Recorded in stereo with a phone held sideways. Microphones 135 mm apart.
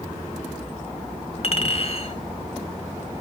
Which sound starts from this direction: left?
A clink, at 1.4 s.